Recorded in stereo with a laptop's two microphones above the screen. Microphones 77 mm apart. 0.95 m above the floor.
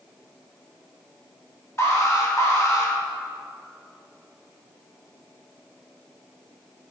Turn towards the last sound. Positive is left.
turn(degrees=35)  # may be behind; listen again after turning